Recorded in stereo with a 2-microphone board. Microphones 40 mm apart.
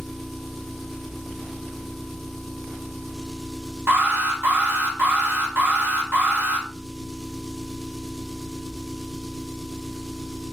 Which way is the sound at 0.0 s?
5° left (ahead or behind).